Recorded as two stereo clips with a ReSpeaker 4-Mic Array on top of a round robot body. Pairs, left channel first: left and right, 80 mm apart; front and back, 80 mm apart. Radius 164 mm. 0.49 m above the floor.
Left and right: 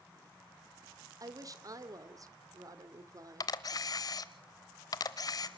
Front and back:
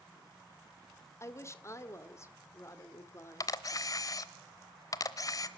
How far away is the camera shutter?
About 0.7 m.